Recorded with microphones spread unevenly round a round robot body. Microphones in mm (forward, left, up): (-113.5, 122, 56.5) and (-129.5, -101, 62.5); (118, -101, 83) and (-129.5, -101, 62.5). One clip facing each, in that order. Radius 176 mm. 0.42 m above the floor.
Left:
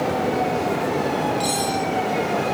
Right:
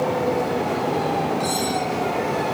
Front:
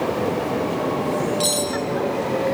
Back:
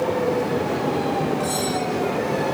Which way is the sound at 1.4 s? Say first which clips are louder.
Even, even; 20° left.